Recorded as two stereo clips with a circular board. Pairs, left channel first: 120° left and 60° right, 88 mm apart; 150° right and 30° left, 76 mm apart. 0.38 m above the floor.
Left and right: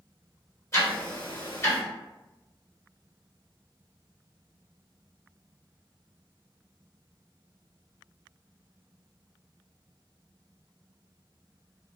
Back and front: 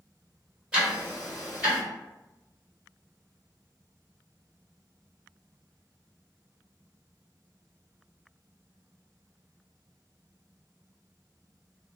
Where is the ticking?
95° left, 1.7 m.